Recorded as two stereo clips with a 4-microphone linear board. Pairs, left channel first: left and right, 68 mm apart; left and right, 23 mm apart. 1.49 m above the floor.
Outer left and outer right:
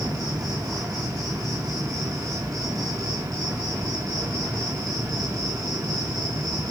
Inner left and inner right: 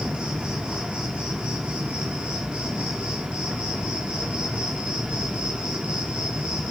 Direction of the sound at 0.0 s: 65° right (ahead or behind).